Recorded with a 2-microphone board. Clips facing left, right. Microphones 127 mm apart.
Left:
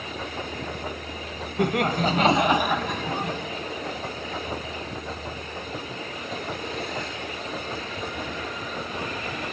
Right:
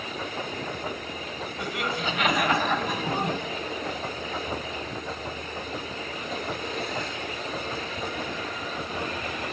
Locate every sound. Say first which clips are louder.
1.6 s laughter: left 8 dB; 55° left (ahead or behind), 2 m; by 3.4 s 25° right (ahead or behind), 2.0 m